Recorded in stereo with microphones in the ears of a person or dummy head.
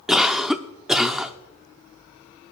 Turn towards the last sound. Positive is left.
turn(degrees=0)  # may be behind; listen again after turning